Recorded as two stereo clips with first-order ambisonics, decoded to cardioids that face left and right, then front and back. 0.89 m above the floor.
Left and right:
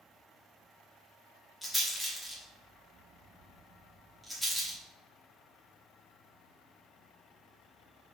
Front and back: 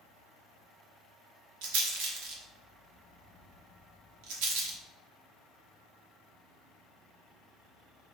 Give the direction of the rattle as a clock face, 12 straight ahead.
6 o'clock.